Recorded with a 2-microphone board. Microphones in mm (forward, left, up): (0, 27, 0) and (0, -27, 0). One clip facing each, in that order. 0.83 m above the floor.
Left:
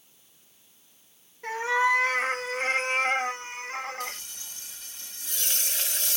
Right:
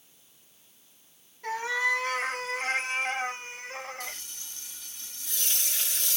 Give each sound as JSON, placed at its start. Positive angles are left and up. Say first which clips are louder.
{"t": 1.4, "sound": "a cat meowing", "louder": "left 4 dB", "side_deg": 35, "distance_m": 1.9}
{"t": 4.0, "sound": "frying", "louder": "left 4 dB", "side_deg": 60, "distance_m": 3.0}